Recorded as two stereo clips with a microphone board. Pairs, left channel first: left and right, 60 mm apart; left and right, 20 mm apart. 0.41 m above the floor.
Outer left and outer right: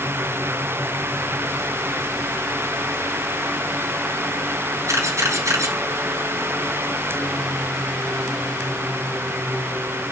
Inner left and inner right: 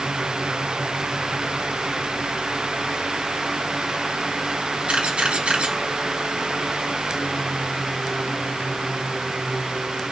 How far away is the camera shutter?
About 4 m.